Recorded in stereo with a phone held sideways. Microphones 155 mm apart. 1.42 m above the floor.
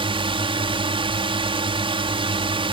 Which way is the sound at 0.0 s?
35° right (ahead or behind).